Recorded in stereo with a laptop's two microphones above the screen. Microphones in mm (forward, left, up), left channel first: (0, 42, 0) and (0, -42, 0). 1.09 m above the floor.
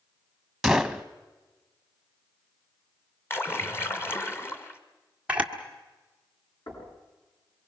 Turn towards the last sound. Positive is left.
turn(degrees=60)  # may be behind; listen again after turning